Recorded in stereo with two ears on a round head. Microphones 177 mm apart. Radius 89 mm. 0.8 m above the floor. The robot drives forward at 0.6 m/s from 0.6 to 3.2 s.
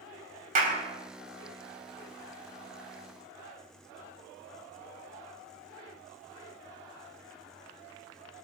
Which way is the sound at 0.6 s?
45° right (ahead or behind).